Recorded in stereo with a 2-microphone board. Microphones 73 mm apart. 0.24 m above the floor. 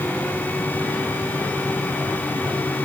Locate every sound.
Only background noise.